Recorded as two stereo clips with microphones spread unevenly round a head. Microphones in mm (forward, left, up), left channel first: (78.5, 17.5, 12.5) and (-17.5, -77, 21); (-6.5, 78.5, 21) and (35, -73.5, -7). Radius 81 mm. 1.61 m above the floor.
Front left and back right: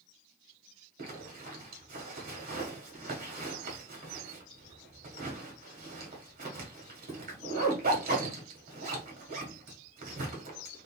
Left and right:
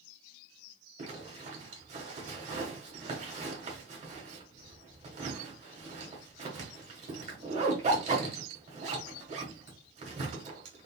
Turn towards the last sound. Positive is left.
turn(degrees=-125)